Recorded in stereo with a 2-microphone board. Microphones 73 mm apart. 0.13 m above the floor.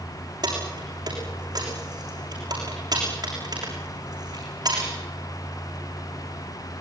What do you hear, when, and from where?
0.4 s keys jangling: 70° right (ahead or behind), 6.5 m